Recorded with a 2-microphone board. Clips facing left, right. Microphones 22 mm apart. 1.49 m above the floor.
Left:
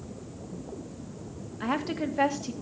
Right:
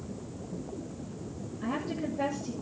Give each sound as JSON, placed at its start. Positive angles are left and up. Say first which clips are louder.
{"t": 1.6, "sound": "a woman speaking", "louder": "left 4 dB", "side_deg": 60, "distance_m": 2.5}